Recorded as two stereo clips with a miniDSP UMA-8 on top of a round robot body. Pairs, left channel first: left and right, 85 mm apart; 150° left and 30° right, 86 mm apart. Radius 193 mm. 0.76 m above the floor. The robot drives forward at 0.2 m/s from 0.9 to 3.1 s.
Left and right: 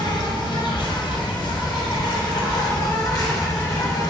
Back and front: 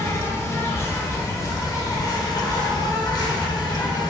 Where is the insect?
100° left, 0.8 m; by 4.1 s 130° left, 1.0 m.